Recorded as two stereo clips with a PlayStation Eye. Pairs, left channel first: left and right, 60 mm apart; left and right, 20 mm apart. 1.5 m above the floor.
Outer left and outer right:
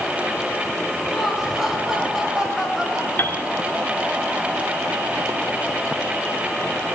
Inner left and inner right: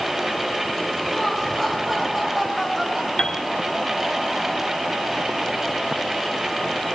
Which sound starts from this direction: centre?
Laughter, at 1.1 s.